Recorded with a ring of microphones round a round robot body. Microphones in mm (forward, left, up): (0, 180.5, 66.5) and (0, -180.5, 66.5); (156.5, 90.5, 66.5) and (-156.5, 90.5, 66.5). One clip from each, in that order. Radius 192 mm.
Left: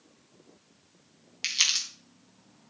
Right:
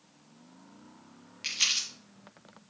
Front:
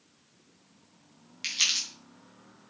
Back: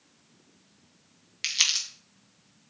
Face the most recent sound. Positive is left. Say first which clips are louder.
# left 2 dB, back 2 dB
turn(degrees=130)